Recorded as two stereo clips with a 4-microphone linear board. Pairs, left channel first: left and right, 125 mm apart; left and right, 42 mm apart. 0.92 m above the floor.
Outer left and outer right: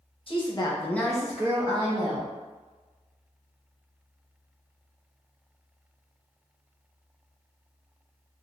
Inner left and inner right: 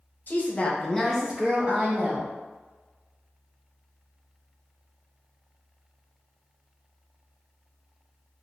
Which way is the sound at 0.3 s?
45° left (ahead or behind).